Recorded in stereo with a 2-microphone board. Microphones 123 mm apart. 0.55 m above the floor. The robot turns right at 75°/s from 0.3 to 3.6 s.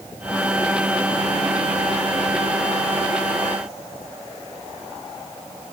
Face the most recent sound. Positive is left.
No sound to turn to.